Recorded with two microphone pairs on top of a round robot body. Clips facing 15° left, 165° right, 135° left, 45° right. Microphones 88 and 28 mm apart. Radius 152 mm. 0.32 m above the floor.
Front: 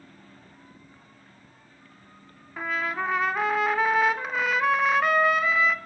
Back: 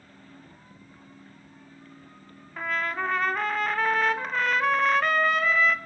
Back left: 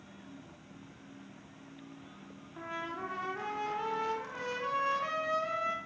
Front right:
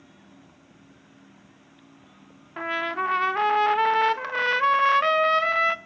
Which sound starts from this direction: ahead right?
A trumpet, at 2.6 s.